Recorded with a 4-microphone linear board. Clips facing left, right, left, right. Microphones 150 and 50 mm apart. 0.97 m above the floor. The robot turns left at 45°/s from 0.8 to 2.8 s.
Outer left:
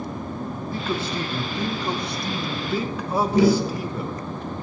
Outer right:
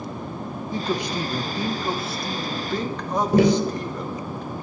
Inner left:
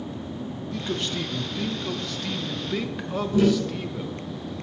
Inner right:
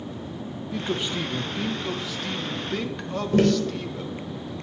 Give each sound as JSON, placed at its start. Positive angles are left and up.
{"t": 0.7, "sound": "a man speaking", "side_deg": -15, "distance_m": 0.8}
{"t": 3.3, "sound": "tapping", "side_deg": -55, "distance_m": 3.0}